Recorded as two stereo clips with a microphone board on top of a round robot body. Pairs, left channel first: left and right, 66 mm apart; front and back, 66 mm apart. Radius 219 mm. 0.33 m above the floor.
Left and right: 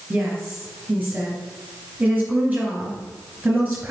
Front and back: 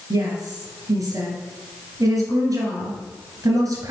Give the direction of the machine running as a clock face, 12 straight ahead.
No machine running in this recording.